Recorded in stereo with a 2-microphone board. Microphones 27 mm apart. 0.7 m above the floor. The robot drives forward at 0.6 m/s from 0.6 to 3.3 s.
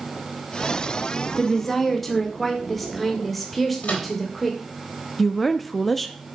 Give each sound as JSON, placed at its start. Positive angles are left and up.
{"t": 1.4, "sound": "a woman speaking", "side_deg": 5, "distance_m": 1.5}
{"t": 3.8, "sound": "a microwave", "side_deg": 70, "distance_m": 3.5}
{"t": 5.2, "sound": "a woman speaking", "side_deg": 0, "distance_m": 0.8}